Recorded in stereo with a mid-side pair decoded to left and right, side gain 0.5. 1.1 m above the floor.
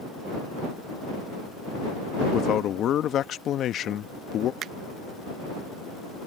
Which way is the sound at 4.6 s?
60° right.